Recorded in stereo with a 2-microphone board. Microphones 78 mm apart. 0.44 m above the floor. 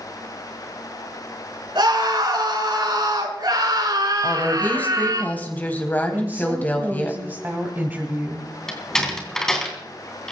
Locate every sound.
1.8 s a scream: 80° right, 5 m; by 5.2 s 55° right (ahead or behind), 5 m
4.2 s a woman speaking: 20° left (ahead or behind), 3 m
6.1 s a woman speaking: 25° right (ahead or behind), 2.5 m
8.7 s a door slam: 5° left (ahead or behind), 3 m